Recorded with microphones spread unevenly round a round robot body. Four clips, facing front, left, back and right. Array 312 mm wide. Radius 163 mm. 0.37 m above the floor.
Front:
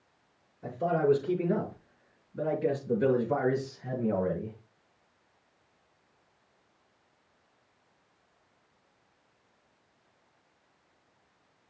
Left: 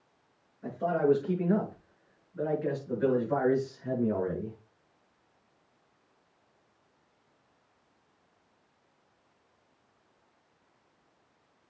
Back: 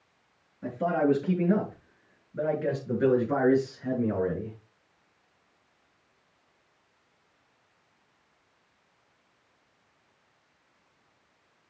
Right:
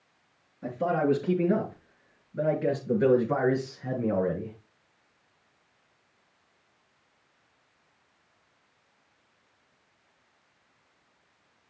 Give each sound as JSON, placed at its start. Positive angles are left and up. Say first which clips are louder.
{"t": 0.6, "sound": "a man speaking", "louder": "right 1 dB, back 1 dB", "azimuth_deg": -130, "distance_m": 6.5}